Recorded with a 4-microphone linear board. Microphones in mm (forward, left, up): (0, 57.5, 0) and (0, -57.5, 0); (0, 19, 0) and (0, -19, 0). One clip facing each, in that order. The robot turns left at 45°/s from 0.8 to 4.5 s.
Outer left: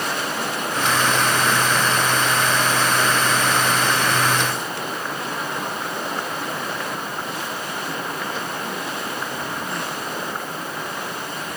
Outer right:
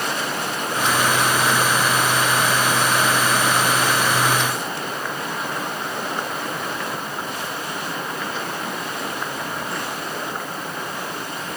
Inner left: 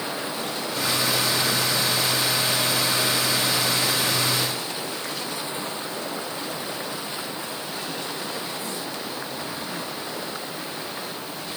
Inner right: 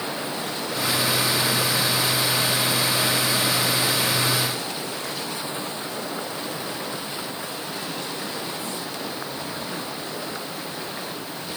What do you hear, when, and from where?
Only background noise.